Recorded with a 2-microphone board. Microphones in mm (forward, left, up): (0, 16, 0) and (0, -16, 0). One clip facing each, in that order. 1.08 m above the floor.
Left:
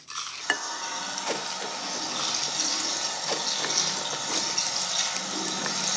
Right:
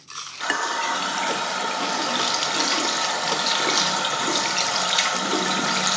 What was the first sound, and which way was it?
A running tap, 60° right (ahead or behind).